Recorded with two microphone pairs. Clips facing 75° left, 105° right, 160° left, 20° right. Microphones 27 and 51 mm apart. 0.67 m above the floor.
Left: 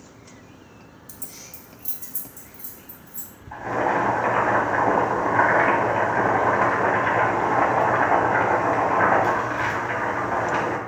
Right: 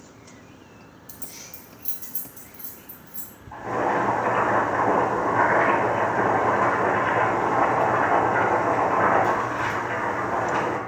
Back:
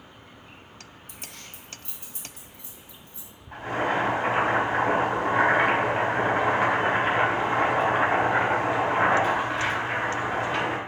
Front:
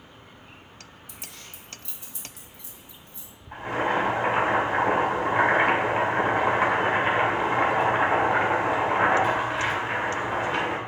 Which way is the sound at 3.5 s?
65° left.